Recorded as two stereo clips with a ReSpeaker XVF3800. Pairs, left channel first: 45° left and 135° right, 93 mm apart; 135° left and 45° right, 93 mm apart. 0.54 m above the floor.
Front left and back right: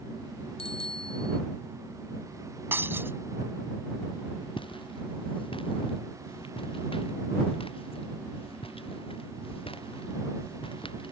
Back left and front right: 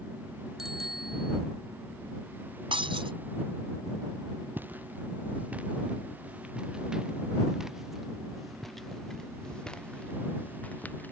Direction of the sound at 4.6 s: 25° left.